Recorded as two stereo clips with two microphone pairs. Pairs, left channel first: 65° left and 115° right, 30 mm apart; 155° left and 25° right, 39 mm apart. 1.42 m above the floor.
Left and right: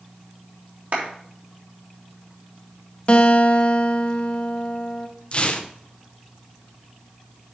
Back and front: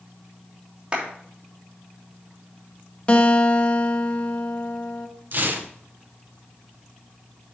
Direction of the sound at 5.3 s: 15° left.